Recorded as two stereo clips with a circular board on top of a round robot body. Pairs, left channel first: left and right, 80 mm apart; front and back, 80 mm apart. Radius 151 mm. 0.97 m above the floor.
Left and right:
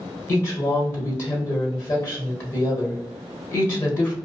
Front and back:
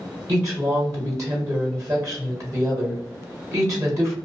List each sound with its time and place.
0.3 s a woman speaking: 140° left, 1.2 m